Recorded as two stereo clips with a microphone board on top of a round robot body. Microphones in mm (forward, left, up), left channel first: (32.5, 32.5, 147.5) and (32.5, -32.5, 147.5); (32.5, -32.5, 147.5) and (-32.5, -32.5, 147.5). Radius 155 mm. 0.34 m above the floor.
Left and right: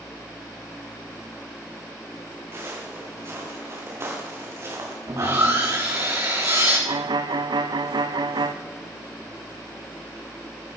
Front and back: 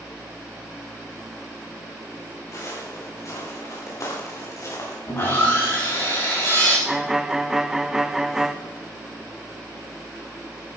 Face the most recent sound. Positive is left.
turn(degrees=-95)